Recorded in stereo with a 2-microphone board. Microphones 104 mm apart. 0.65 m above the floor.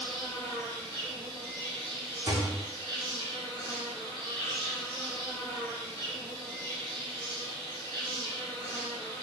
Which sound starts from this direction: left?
An insect, at 0.0 s.